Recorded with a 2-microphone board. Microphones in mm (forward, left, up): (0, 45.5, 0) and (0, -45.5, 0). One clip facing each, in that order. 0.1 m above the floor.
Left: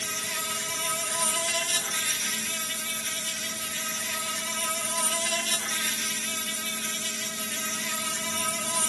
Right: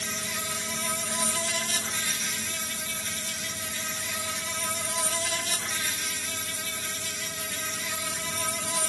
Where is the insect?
10° right (ahead or behind), 1.5 m.